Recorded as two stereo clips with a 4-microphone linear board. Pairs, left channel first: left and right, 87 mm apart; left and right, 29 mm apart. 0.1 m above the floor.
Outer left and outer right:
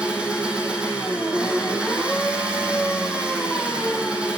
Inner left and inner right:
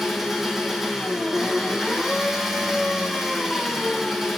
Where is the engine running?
15° right (ahead or behind), 1.5 m.